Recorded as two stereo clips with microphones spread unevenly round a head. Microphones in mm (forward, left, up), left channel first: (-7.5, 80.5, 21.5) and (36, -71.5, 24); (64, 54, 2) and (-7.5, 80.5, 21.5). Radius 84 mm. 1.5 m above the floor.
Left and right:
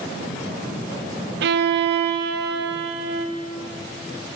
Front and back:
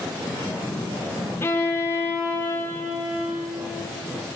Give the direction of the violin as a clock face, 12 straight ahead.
3 o'clock.